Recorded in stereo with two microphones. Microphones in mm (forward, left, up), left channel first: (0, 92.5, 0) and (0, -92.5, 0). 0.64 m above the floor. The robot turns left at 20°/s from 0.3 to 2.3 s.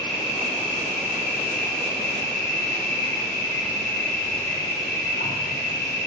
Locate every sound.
0.0 s an insect: 140° left, 2.0 m; by 6.1 s 100° left, 2.0 m